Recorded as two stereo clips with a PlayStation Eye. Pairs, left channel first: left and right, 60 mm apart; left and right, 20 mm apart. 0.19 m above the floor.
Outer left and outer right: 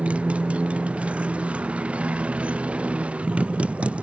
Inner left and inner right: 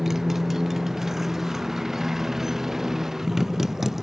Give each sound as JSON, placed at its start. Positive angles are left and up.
{"t": 0.0, "sound": "a motorcycle", "side_deg": -20}